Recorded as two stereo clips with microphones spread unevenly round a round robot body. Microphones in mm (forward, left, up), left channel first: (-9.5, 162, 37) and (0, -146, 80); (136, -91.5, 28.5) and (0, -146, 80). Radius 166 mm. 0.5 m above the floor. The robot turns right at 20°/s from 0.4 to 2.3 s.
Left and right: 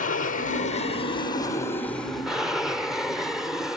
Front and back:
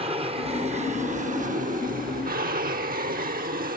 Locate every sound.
0.0 s an aircraft: 140° left; by 3.8 s 175° left